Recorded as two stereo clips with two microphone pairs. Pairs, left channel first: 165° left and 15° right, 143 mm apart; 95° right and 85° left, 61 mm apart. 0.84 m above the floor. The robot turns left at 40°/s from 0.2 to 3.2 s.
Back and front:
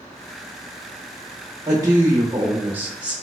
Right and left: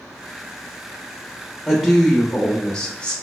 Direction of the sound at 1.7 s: 15° right.